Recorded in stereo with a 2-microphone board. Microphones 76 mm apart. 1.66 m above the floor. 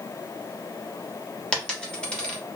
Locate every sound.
1.5 s a dropped coin: 10° left (ahead or behind), 1.2 m